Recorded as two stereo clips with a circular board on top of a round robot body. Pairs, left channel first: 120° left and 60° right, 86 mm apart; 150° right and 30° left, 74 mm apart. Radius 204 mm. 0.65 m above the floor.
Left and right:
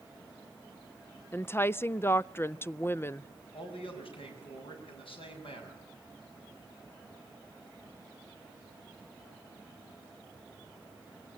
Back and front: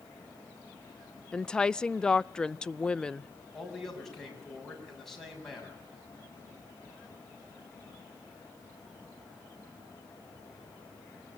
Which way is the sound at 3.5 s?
125° left.